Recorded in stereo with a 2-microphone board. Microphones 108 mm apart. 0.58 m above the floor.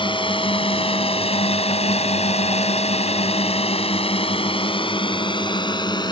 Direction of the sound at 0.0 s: 50° left (ahead or behind).